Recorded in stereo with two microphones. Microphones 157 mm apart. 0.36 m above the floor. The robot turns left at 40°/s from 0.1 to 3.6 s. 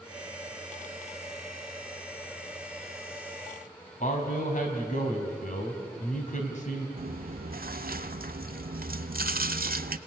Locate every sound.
4.0 s a man speaking: 55° left (ahead or behind), 3 m
7.0 s chewing: 70° right (ahead or behind), 0.7 m